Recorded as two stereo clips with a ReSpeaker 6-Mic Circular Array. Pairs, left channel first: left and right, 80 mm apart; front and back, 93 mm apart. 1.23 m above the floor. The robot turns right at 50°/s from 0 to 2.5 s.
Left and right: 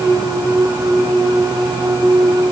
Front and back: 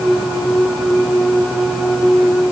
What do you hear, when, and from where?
Only background noise.